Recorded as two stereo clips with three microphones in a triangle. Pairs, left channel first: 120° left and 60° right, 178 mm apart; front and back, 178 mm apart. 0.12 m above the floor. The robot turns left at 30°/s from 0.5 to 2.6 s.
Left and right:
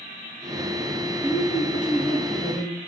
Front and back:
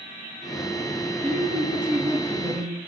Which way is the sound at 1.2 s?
110° right.